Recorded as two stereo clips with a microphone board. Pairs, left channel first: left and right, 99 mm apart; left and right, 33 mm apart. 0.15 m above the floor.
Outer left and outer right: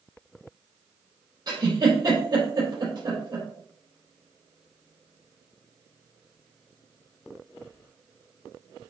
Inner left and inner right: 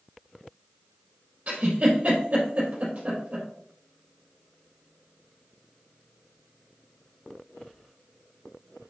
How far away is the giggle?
About 3.5 m.